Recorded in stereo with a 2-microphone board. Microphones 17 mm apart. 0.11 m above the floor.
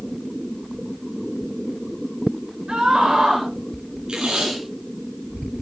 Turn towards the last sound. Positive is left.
turn(degrees=-55)  # may be behind; listen again after turning